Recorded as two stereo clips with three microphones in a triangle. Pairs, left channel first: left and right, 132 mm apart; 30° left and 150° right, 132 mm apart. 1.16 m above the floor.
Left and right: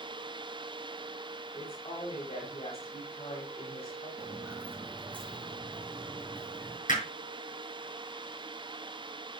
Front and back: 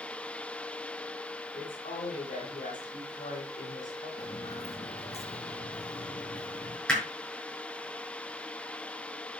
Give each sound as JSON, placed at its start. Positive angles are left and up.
{"t": 1.5, "sound": "a woman speaking", "azimuth_deg": 50, "distance_m": 4.5}
{"t": 4.2, "sound": "footsteps", "azimuth_deg": -20, "distance_m": 3.5}
{"t": 6.9, "sound": "hammering", "azimuth_deg": 115, "distance_m": 6.5}